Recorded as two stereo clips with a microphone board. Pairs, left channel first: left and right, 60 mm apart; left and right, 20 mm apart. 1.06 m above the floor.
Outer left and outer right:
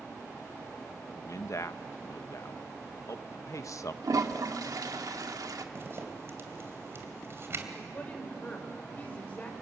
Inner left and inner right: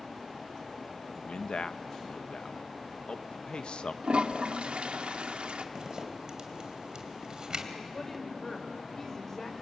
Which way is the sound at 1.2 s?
60° left (ahead or behind).